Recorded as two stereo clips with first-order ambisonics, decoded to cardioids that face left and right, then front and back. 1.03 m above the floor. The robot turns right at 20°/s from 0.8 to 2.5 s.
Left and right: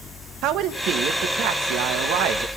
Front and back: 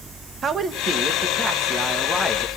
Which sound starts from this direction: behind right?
A woman speaking, at 0.4 s.